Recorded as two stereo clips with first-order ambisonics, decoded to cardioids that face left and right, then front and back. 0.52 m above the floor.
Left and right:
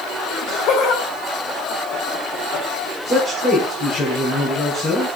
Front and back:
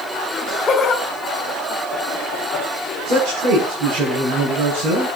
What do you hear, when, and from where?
0.3 s laughter: 60° left, 1.8 m
3.0 s a man speaking: 155° left, 5.5 m